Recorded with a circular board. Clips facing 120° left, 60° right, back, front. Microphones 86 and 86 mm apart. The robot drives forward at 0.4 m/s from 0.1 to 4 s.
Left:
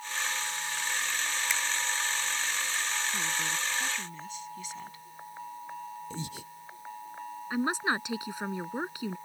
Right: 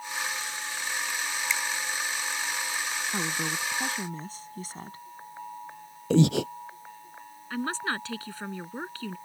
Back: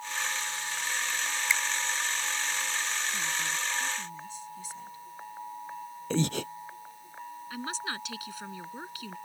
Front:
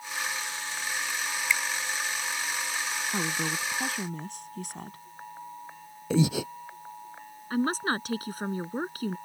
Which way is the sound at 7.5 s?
45° left.